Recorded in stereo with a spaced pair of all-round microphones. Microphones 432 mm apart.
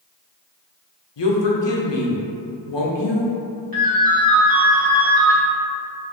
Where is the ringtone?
50° right (ahead or behind), 1.1 m.